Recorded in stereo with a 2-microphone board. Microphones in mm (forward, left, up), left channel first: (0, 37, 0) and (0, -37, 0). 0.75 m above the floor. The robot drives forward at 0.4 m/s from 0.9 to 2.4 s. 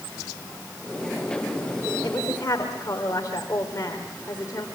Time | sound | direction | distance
2.0 | a woman speaking | 40° left (ahead or behind) | 2.5 m